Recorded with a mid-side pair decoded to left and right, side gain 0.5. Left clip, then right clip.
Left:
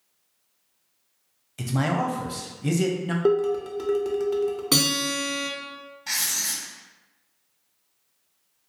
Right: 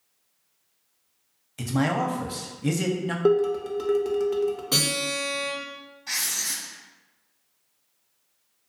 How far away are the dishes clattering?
About 0.5 m.